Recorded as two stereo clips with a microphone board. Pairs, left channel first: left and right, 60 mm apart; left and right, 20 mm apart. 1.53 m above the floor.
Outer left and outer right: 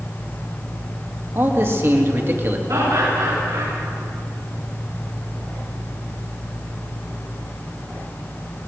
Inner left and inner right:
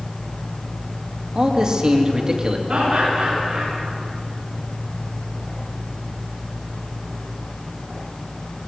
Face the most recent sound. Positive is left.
turn(degrees=-85)